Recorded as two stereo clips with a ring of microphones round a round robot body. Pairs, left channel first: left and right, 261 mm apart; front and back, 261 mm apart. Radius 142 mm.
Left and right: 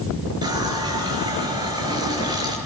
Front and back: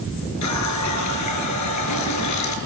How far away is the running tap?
About 4.5 m.